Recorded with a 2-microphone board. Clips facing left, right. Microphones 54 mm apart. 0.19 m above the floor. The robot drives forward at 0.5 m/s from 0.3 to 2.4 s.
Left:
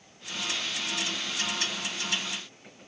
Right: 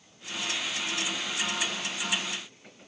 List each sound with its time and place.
Only background noise.